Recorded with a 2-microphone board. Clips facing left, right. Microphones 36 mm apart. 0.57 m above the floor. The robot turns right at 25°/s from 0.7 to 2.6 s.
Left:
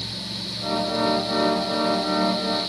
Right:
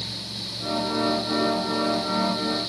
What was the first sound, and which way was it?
Only background noise.